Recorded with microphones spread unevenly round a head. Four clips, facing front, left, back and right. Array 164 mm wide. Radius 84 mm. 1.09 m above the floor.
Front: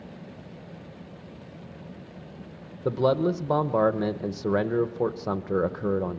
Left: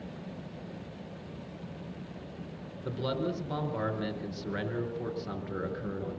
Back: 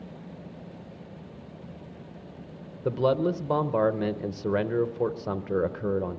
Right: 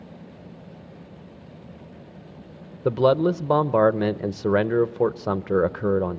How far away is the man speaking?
About 0.9 m.